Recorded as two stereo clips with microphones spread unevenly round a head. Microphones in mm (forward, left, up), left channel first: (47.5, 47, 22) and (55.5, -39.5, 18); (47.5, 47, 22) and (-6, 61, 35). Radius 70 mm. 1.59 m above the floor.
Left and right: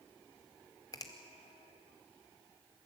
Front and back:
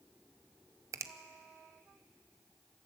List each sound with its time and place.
0.9 s a finger snap: 155° left, 0.7 m